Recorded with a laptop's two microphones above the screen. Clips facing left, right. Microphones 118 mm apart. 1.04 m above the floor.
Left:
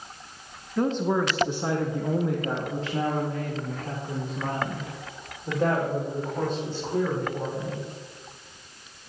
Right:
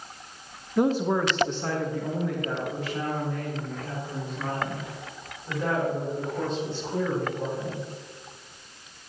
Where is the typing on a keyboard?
No typing on a keyboard in this recording.